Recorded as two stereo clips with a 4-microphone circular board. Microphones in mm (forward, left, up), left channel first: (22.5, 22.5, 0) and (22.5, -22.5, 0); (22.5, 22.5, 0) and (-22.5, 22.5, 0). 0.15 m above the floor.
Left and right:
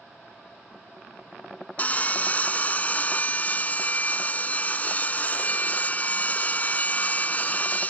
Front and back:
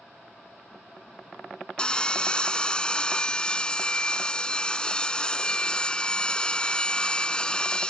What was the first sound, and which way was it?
Sawing, 60° left.